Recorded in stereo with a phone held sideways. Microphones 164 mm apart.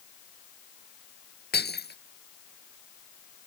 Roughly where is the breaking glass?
Left.